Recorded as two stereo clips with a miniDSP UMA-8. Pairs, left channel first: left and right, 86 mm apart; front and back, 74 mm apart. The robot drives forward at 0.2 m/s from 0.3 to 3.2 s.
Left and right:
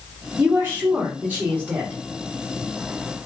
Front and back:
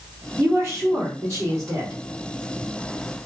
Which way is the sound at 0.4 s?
140° right.